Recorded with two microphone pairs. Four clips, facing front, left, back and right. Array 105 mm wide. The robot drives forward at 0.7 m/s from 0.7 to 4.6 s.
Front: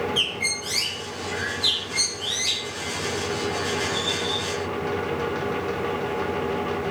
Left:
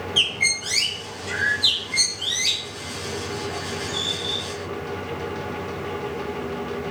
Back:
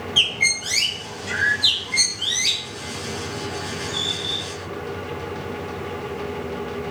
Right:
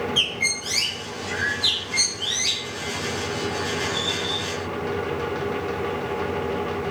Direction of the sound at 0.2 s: 155° left.